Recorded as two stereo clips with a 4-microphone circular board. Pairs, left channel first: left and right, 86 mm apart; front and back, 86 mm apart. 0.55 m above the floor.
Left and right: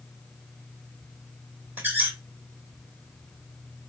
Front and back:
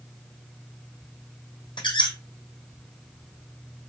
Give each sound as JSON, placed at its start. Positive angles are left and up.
{"t": 1.8, "sound": "a squeak", "azimuth_deg": -20, "distance_m": 1.5}